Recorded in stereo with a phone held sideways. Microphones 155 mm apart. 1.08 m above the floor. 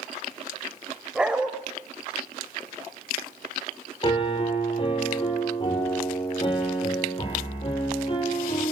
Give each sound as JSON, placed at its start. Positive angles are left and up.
{"t": 1.1, "sound": "a dog barking", "side_deg": -5, "distance_m": 2.0}
{"t": 4.0, "sound": "a piano", "side_deg": 30, "distance_m": 4.0}